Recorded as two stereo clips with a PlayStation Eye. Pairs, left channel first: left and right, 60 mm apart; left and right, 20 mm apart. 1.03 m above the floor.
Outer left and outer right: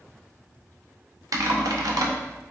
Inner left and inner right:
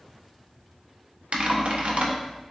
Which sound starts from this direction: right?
Typing on a keyboard, at 1.3 s.